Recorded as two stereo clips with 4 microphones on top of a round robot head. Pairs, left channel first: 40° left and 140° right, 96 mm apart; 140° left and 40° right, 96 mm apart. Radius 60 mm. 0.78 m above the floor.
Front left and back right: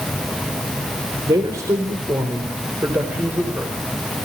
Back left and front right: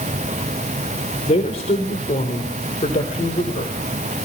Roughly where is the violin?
I don't hear a violin.